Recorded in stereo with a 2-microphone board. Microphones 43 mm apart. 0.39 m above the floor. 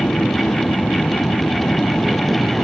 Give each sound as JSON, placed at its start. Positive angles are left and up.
{"t": 0.0, "sound": "an aircraft", "side_deg": 45}